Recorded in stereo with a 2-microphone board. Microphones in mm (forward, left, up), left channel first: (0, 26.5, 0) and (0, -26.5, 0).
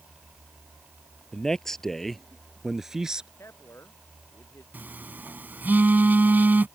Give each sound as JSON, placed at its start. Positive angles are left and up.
{"t": 1.3, "sound": "a man speaking", "side_deg": 10}
{"t": 3.4, "sound": "a man speaking", "side_deg": 55}
{"t": 4.7, "sound": "a phone buzzing", "side_deg": -35}